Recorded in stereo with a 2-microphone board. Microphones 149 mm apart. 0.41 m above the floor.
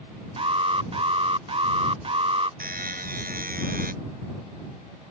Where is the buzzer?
80° right.